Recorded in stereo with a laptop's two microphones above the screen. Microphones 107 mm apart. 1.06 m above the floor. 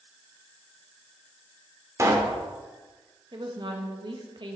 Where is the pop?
30° right (ahead or behind), 1.6 m.